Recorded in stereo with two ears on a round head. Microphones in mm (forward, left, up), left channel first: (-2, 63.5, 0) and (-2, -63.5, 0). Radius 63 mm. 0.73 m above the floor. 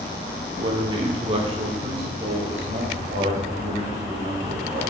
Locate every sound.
0.6 s a man speaking: 30° right (ahead or behind), 1.1 m; by 4.8 s 50° right (ahead or behind), 3.5 m